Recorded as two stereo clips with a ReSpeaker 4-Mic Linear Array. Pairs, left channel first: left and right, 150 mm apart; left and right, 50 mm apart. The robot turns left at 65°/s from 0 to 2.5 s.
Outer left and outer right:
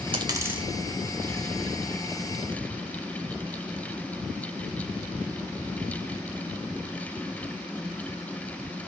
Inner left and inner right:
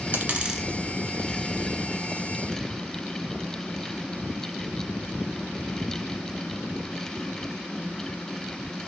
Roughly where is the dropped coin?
Right.